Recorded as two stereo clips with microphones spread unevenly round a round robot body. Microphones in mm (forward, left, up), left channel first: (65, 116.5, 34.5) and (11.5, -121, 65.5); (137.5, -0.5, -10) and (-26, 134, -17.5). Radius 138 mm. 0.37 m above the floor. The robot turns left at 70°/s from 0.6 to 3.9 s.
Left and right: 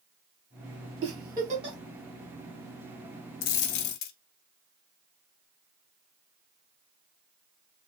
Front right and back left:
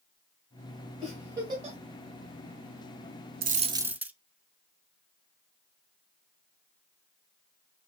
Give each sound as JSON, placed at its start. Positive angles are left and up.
{"t": 1.0, "sound": "a giggle", "azimuth_deg": -125, "distance_m": 1.3}
{"t": 3.4, "sound": "a dropped coin", "azimuth_deg": 90, "distance_m": 0.5}